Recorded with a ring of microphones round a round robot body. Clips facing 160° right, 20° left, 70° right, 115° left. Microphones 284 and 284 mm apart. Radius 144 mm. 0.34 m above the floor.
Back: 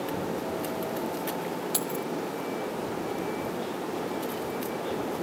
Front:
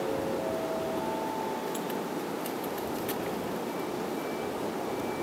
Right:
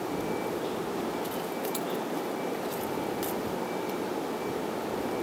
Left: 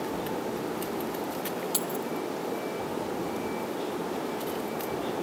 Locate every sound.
1.7 s keys jangling: 175° left